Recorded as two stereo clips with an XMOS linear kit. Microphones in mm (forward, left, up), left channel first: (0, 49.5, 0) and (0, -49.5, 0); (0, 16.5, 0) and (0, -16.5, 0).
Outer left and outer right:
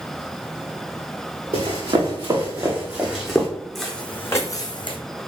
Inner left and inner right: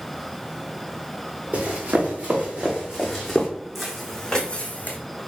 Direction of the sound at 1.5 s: 65° right (ahead or behind).